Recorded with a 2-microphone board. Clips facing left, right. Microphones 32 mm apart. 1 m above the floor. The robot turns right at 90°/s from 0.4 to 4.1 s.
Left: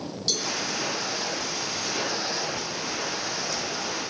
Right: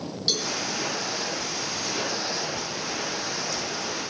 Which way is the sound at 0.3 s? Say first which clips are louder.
Right 2 dB; 20° right (ahead or behind).